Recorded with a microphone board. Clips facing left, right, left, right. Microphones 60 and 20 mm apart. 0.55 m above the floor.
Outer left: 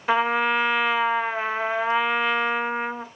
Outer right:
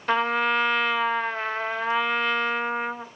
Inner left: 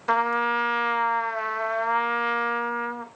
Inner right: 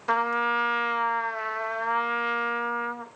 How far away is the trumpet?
About 0.8 m.